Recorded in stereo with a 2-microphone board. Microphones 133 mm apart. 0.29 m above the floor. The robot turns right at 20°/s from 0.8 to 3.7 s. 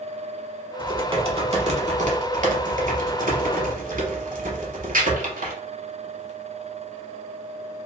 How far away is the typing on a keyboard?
About 0.8 m.